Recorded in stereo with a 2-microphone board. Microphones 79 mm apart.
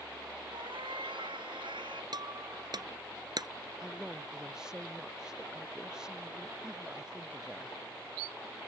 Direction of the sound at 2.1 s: 60° right (ahead or behind).